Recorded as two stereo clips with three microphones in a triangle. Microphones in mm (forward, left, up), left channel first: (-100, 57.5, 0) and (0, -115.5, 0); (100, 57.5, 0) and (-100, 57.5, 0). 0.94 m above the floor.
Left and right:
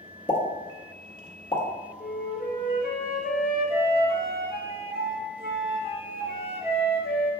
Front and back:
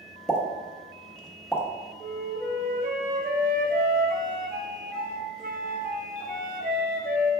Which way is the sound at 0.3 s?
85° left.